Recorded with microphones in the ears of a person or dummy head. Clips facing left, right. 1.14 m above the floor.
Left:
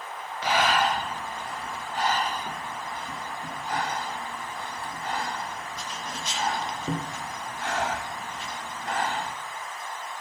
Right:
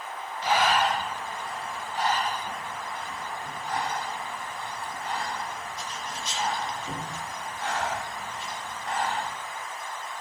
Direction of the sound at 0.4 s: 60° left (ahead or behind).